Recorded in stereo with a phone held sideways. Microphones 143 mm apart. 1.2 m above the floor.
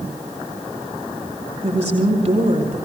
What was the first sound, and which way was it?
A woman speaking, 45° right (ahead or behind).